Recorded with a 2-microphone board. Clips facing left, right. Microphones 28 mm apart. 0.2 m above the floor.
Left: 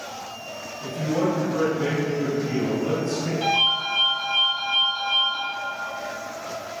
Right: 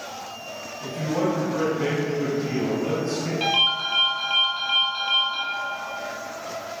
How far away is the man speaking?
About 2.0 m.